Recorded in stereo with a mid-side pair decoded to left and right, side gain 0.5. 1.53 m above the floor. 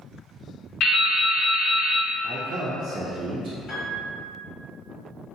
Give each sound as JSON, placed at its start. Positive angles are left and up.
{"t": 0.8, "sound": "dripping", "azimuth_deg": 65, "distance_m": 0.8}
{"t": 2.2, "sound": "a man speaking", "azimuth_deg": -55, "distance_m": 0.5}
{"t": 3.7, "sound": "a piano", "azimuth_deg": 65, "distance_m": 1.5}